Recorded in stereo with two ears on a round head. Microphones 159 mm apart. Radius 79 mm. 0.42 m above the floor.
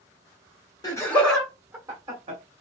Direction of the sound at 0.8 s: 20° left (ahead or behind).